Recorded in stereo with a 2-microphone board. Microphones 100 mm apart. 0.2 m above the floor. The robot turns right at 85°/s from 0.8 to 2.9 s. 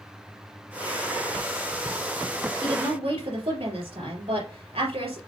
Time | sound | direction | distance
2.6 | a woman speaking | 55° right (ahead or behind) | 3.5 m